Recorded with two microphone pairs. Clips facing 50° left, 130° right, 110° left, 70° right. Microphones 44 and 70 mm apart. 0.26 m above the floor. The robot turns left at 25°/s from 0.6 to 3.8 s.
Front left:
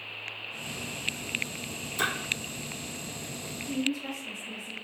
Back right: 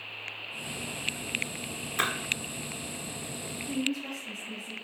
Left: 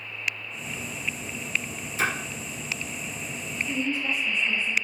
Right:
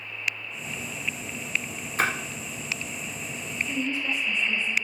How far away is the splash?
About 1.2 m.